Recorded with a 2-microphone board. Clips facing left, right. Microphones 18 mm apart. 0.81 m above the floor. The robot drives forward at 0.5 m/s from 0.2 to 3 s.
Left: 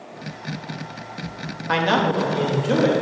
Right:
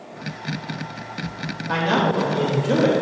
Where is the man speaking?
40° left (ahead or behind), 1.2 m; by 2.9 s 35° left (ahead or behind), 1.5 m.